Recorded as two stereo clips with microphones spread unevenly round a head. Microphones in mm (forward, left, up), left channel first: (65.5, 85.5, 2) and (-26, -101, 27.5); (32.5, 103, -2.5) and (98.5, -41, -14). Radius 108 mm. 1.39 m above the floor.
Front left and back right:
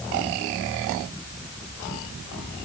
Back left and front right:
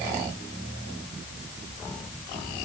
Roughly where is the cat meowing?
No cat meowing in this recording.